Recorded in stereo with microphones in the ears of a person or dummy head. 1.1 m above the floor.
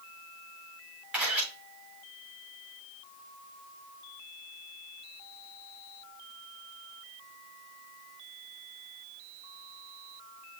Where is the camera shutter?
Centre (ahead or behind), 5.5 m.